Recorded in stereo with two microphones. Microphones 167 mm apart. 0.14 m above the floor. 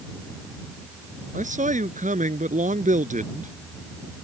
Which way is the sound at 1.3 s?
50° right (ahead or behind).